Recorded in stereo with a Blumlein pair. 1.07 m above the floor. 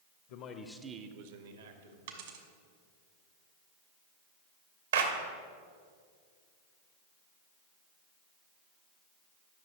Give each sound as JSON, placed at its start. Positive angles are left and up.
{"t": 0.3, "sound": "a man speaking", "azimuth_deg": 50, "distance_m": 0.8}
{"t": 2.1, "sound": "a dropped coin", "azimuth_deg": -55, "distance_m": 1.3}
{"t": 4.9, "sound": "a clap", "azimuth_deg": -65, "distance_m": 1.1}